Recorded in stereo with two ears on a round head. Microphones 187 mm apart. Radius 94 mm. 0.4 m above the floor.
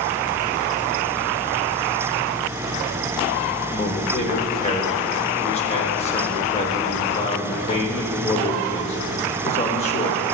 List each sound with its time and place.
3.7 s a man speaking: 30° left (ahead or behind), 0.9 m